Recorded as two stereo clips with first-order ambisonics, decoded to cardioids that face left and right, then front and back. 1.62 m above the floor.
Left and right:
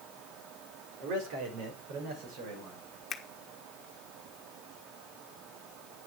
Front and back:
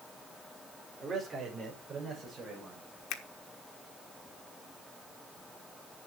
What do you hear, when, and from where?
1.0 s a man speaking: 105° right, 4.5 m
3.1 s a finger snap: 25° left, 1.3 m